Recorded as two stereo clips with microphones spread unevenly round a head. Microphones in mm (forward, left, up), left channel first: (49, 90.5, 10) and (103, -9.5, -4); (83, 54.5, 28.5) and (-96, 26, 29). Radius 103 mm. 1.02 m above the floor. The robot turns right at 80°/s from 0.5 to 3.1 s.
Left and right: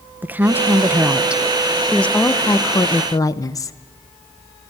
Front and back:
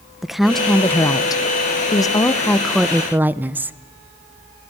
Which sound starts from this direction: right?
A woman speaking, at 0.2 s.